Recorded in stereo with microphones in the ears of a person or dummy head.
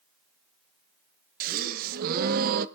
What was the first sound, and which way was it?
A gasp, 50° right (ahead or behind).